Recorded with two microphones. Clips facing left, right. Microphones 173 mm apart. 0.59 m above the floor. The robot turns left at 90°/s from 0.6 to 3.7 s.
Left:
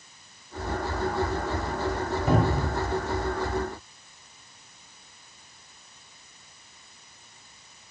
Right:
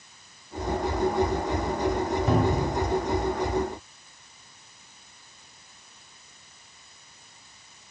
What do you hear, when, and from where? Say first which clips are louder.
2.3 s a cupboard door: left 1 dB; 175° left, 0.9 m; by 2.8 s 130° left, 0.9 m